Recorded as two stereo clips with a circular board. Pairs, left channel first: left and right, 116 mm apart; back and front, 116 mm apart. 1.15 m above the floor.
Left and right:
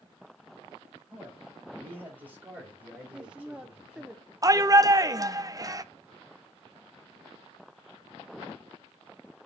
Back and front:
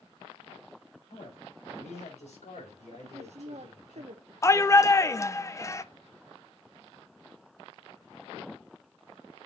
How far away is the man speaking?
About 7 m.